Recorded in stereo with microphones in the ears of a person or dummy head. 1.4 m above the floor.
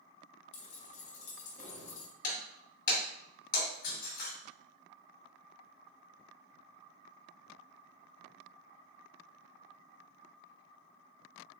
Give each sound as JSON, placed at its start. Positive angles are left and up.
{"t": 0.5, "sound": "keys jangling", "side_deg": 45, "distance_m": 1.1}
{"t": 2.2, "sound": "breaking glass", "side_deg": 55, "distance_m": 1.6}